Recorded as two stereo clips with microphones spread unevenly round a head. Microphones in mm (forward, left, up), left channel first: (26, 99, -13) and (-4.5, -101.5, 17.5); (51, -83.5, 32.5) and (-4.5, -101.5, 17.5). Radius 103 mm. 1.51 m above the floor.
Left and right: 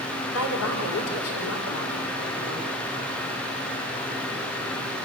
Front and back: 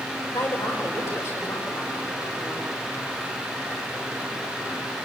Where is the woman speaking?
75° left, 5 m.